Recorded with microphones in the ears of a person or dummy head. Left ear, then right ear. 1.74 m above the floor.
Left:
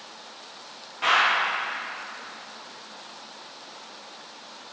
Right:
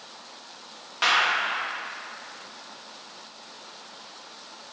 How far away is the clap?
About 2.5 m.